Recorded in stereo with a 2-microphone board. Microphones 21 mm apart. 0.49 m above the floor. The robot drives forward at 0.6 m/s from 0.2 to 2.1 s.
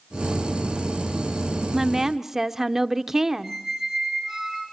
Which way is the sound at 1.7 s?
20° right (ahead or behind).